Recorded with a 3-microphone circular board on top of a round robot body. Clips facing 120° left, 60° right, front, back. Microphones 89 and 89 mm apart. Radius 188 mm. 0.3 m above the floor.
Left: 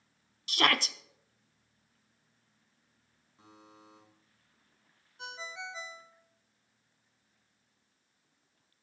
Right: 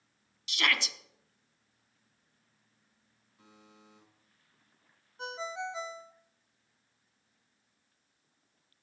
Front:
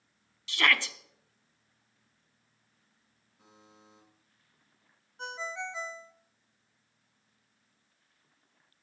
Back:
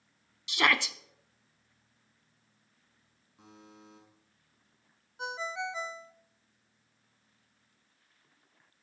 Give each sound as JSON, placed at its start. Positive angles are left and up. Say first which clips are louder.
{"t": 0.5, "sound": "a shout", "louder": "left 3 dB, back 1 dB", "azimuth_deg": 115, "distance_m": 1.1}
{"t": 3.4, "sound": "a buzzer", "louder": "left 3 dB, back 5 dB", "azimuth_deg": 180, "distance_m": 6.5}
{"t": 5.2, "sound": "a ringtone", "louder": "right 6 dB, back 2 dB", "azimuth_deg": -100, "distance_m": 0.9}